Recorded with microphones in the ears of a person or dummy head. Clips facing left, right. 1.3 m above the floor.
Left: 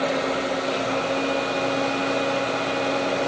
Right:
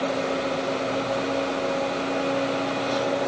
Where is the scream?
No scream in this recording.